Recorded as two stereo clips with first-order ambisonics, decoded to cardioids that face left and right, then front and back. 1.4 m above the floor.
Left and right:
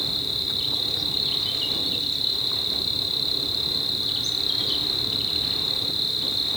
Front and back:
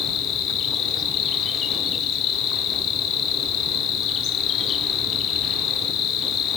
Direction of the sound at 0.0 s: 5° left.